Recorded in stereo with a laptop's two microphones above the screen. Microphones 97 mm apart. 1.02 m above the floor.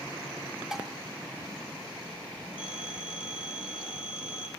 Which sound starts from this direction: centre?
Dishes clattering, at 0.7 s.